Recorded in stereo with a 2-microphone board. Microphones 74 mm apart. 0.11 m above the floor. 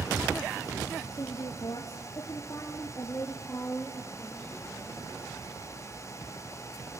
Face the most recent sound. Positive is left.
turn(degrees=10)  # may be behind; listen again after turning